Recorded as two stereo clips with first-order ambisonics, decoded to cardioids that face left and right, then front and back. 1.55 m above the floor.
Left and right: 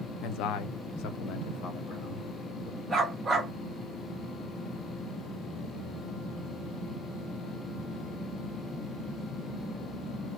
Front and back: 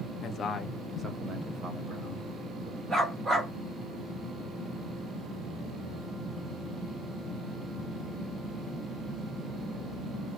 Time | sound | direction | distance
0.2 | a man speaking | 55° left | 0.6 m
2.9 | a dog barking | 145° right | 1.1 m